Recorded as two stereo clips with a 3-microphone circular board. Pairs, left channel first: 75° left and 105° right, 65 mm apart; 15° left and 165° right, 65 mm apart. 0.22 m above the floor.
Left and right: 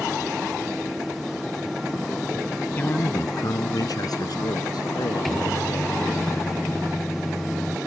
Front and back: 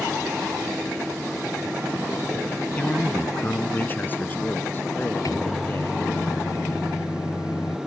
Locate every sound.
2.8 s a man speaking: 60° left; by 6.0 s 75° left
5.2 s a microwave: 10° right